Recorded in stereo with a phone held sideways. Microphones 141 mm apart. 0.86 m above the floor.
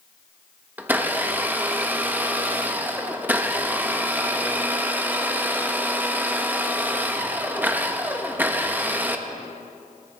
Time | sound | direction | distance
0.8 | a blender | 15° right (ahead or behind) | 0.8 m